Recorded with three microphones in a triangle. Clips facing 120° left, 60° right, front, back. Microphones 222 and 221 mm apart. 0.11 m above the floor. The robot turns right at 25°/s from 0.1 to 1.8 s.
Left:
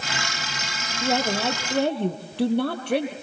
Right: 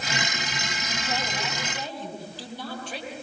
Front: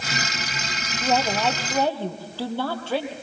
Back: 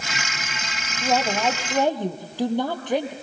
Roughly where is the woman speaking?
Left.